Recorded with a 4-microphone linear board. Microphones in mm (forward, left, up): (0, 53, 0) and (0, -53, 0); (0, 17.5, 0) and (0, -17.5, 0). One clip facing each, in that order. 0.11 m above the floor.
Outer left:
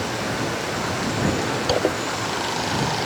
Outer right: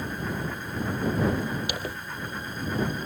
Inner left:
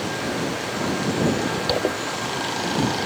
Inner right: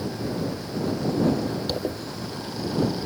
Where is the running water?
90° left.